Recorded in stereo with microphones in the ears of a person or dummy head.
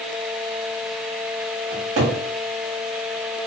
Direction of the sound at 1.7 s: 40° right (ahead or behind).